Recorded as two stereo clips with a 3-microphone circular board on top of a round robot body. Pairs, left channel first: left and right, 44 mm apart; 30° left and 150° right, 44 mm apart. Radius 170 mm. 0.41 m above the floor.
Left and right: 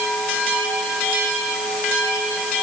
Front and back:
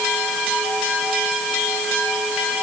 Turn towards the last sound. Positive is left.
No sound to turn to.